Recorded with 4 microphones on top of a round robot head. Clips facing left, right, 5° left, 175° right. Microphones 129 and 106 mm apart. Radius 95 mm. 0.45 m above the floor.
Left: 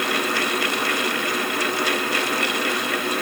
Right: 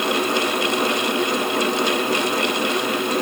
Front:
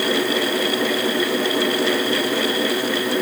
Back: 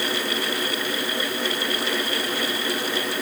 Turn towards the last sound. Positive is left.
No sound to turn to.